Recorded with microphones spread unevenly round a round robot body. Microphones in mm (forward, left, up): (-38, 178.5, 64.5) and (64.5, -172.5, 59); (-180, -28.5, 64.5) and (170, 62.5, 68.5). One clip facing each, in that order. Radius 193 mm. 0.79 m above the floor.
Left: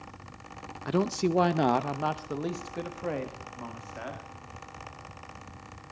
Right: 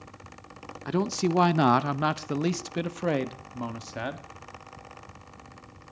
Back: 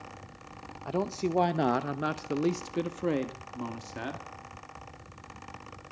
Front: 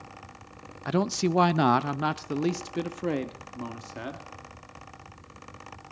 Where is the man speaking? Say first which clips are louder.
Even, front 4 dB; 10° left, 0.8 m; by 4.2 s 85° right, 1.8 m.